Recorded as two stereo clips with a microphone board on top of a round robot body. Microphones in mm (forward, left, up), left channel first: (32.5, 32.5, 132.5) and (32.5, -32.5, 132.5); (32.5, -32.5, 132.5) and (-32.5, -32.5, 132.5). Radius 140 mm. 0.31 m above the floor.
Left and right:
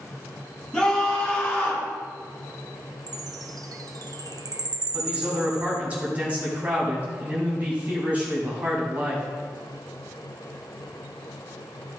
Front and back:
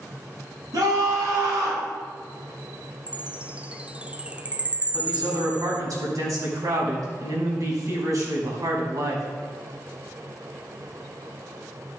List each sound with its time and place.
0.7 s a scream: 165° left, 4 m; by 1.9 s 150° left, 3.5 m
3.1 s a chime: 110° right, 0.6 m
4.9 s a man speaking: 155° right, 3.5 m